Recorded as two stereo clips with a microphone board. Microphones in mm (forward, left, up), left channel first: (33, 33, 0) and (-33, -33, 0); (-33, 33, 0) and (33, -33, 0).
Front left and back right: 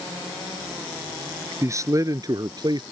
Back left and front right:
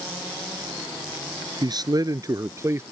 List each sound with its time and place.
1.6 s a man speaking: 80° right; by 2.8 s 105° right